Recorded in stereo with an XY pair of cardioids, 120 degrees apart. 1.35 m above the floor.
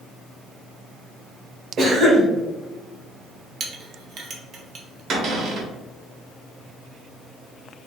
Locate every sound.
1.8 s a cough: 55° right, 1.2 m
3.6 s a clink: 50° right, 0.8 m
5.1 s a cupboard door: 60° right, 1.3 m